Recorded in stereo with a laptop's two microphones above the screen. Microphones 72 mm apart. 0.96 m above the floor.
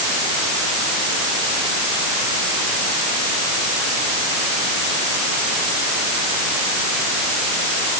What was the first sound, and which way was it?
Only background noise.